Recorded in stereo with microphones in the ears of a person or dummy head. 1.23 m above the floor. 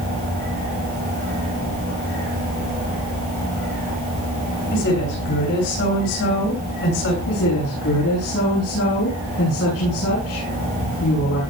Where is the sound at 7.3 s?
75° left (ahead or behind), 9.5 m.